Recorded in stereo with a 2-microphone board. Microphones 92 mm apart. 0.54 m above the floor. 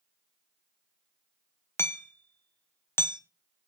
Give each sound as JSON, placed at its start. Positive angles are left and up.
{"t": 1.8, "sound": "hammering", "side_deg": 25, "distance_m": 0.7}